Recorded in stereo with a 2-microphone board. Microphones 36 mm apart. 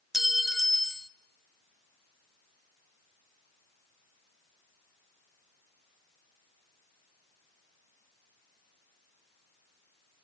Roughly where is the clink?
Centre.